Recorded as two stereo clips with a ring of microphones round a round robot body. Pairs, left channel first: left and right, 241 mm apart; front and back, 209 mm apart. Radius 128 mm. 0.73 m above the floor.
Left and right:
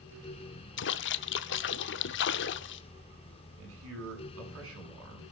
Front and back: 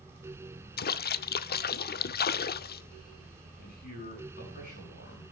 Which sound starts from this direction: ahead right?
A man speaking, at 3.6 s.